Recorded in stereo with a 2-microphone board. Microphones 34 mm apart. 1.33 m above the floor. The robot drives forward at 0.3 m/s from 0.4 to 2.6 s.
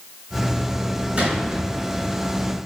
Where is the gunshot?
40° right (ahead or behind), 4 m.